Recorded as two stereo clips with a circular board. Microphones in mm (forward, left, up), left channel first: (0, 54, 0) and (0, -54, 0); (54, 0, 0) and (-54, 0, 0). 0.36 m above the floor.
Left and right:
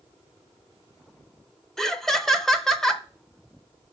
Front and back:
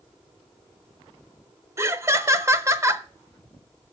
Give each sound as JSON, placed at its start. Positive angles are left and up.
{"t": 1.8, "sound": "laughter", "azimuth_deg": 170, "distance_m": 0.8}